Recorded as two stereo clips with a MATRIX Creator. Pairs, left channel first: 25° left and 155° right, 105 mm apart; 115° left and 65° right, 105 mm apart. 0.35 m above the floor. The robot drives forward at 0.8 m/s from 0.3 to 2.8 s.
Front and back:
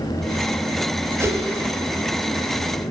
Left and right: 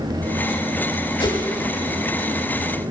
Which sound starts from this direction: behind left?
A whoosh, at 1.2 s.